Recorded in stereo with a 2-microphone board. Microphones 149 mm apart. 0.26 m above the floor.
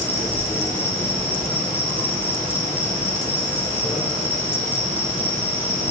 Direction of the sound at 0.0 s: 15° left (ahead or behind).